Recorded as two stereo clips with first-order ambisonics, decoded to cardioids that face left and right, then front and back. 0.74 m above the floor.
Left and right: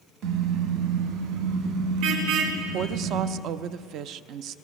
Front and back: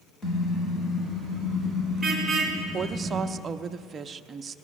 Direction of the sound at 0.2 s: 65° right.